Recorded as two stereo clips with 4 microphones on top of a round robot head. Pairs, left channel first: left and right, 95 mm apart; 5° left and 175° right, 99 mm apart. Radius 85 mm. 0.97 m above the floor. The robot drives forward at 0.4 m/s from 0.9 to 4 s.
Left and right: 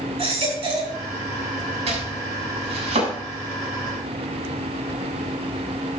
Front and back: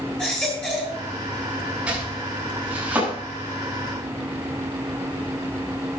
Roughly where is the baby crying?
Right.